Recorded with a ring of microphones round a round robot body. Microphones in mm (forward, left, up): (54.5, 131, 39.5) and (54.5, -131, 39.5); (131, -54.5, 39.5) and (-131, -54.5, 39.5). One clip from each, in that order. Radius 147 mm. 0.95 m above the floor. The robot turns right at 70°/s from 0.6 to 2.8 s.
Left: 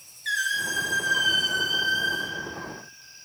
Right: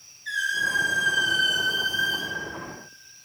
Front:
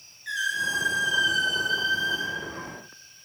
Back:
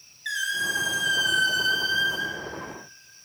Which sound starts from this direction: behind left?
A squeak, at 0.2 s.